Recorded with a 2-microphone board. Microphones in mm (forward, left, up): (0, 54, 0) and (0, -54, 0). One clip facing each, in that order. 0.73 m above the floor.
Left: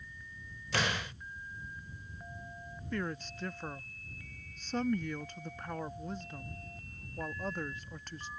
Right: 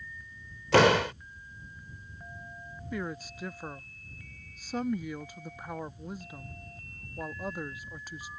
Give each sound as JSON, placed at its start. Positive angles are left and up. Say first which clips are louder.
{"t": 0.7, "sound": "a door slam", "louder": "right 14 dB", "side_deg": -80}
{"t": 2.9, "sound": "a woman speaking", "louder": "right 1 dB", "side_deg": -10}